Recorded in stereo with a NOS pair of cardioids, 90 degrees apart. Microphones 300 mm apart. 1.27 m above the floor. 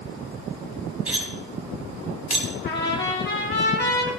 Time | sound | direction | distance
1.1 | cutlery clinking | 5° right | 4.5 m
2.6 | a trumpet | 35° left | 3.5 m